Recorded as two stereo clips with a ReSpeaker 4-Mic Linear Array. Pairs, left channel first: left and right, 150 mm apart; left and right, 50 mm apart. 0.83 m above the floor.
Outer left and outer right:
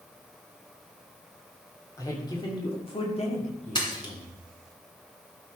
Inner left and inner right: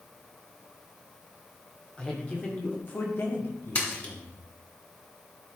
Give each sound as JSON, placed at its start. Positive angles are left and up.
{"t": 2.0, "sound": "a man speaking", "side_deg": 20, "distance_m": 2.0}
{"t": 3.8, "sound": "a splash", "side_deg": 30, "distance_m": 2.0}